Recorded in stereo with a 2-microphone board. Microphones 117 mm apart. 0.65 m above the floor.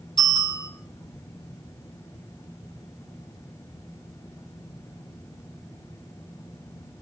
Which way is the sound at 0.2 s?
35° left (ahead or behind).